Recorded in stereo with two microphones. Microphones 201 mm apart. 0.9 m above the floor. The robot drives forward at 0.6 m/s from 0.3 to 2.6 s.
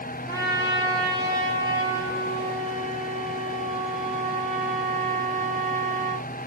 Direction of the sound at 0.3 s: 15° right (ahead or behind).